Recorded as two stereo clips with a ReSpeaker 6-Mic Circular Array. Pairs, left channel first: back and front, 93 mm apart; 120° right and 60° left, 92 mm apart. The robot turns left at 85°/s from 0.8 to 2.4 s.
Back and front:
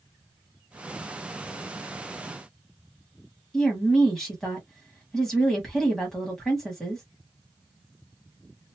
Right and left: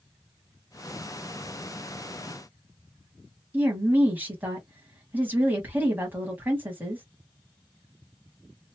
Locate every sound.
3.5 s a woman speaking: 100° left, 1.1 m